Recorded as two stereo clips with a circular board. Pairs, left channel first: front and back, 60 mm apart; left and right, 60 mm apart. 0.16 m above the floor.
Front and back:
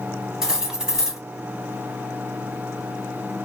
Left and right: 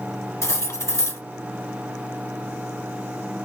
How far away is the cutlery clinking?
About 1.3 m.